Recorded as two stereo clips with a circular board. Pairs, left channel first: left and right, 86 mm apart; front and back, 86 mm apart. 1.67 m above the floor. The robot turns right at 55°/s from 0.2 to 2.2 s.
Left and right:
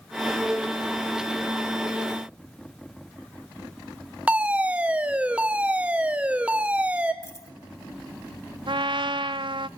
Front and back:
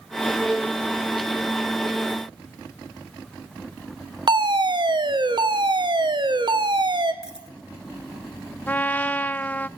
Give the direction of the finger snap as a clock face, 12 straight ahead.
No finger snap in this recording.